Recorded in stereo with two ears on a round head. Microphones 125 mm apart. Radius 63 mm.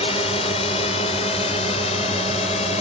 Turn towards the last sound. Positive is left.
turn(degrees=50)  # may be behind; listen again after turning